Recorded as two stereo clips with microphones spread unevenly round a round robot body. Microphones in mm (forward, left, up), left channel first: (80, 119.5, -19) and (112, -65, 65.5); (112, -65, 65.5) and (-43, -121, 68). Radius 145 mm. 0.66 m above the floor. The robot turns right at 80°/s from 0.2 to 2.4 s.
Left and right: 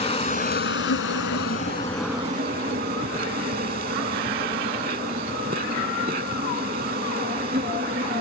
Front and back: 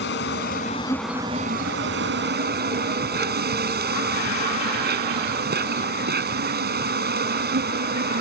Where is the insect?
40° left; by 8.2 s 145° right.